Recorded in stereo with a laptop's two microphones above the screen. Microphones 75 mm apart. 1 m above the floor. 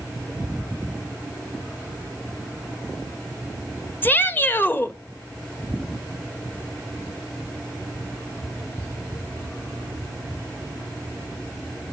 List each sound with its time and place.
4.0 s a shout: 30° left (ahead or behind), 1.6 m